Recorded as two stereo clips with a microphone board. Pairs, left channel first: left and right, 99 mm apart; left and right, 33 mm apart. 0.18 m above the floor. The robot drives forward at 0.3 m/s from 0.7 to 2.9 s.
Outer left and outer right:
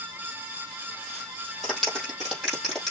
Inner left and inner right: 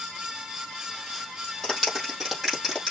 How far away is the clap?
About 4.5 m.